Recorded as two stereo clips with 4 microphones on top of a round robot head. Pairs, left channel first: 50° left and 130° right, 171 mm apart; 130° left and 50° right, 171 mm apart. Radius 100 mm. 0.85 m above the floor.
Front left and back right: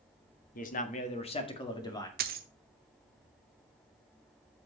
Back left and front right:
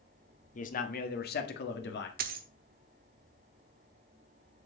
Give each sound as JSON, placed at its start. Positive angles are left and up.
{"t": 0.6, "sound": "a man speaking", "azimuth_deg": 90, "distance_m": 1.6}
{"t": 2.2, "sound": "a dropped coin", "azimuth_deg": -90, "distance_m": 0.8}